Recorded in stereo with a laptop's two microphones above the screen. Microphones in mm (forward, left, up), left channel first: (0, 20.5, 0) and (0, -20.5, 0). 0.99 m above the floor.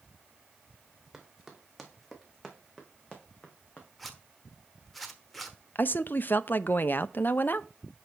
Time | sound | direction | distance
1.1 | running footsteps | 5° right (ahead or behind) | 2.5 m
4.0 | a zipper | 5° left (ahead or behind) | 1.0 m
5.8 | a woman speaking | 50° left (ahead or behind) | 0.6 m